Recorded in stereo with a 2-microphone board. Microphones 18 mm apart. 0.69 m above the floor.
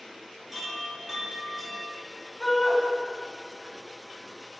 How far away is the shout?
About 5.5 m.